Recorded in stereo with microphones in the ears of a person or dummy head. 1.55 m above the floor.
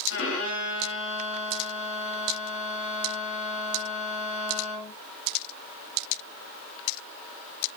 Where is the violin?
55° left (ahead or behind), 3 m.